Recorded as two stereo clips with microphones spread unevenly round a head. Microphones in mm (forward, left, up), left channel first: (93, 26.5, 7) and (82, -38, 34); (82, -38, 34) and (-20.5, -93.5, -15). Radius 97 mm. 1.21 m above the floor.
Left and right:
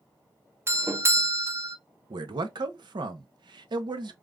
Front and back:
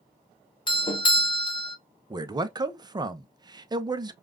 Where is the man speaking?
90° right, 0.7 m.